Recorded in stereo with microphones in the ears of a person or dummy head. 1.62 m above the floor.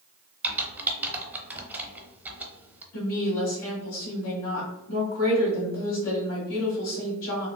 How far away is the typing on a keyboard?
About 0.6 m.